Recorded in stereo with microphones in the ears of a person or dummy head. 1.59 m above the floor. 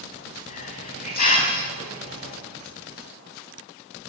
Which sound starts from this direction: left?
A hiss, at 0.5 s.